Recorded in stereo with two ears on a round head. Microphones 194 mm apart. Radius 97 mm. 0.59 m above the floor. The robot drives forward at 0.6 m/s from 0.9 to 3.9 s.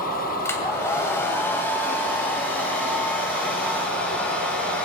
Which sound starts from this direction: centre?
A hair dryer, at 0.5 s.